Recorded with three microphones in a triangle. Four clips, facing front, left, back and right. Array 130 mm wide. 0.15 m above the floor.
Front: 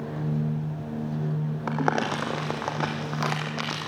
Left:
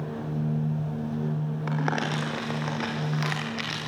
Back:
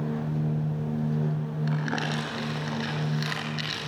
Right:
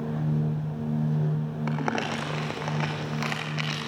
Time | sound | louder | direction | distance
1.7 | crumpling | left 1 dB, front 6 dB | 5° right | 7.5 m